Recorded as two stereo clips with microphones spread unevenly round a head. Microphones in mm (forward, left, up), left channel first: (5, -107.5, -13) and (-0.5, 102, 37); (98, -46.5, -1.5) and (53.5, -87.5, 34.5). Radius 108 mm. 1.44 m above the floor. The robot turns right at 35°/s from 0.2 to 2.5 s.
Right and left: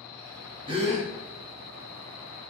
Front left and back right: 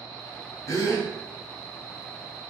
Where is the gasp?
20° left, 1.0 m; by 1.1 s 35° left, 1.0 m.